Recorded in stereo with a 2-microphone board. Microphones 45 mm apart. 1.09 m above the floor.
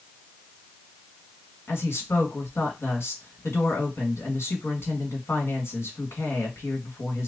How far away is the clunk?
I don't hear a clunk.